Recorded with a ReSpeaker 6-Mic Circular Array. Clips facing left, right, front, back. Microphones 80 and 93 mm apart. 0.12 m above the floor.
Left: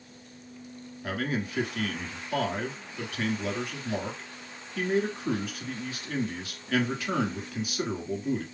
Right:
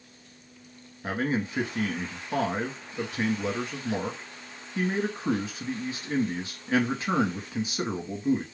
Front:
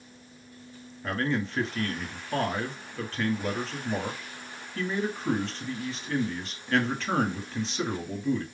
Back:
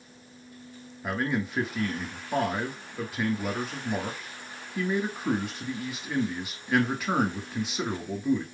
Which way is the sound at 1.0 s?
115° right.